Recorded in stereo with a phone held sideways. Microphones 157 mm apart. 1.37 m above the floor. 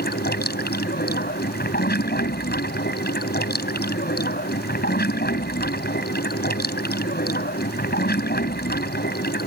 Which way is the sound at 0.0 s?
80° left.